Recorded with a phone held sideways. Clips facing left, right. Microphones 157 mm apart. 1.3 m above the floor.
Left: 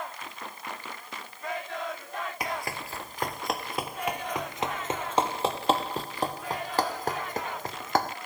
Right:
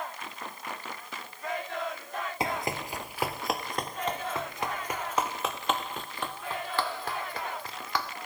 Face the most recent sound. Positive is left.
turn(degrees=45)  # may be behind; listen again after turning